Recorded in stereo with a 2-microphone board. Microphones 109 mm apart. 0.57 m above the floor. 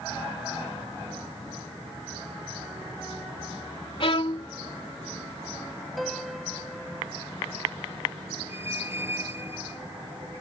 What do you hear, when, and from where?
4.0 s a violin: 55° left (ahead or behind)
6.0 s a piano: centre (ahead or behind)
8.5 s a squeak: 20° right (ahead or behind)